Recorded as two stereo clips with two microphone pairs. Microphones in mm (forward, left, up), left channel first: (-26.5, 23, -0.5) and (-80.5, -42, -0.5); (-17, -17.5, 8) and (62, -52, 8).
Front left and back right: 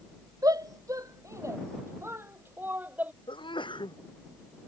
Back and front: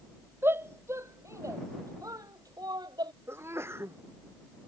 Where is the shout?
85° right; by 3.1 s 60° right.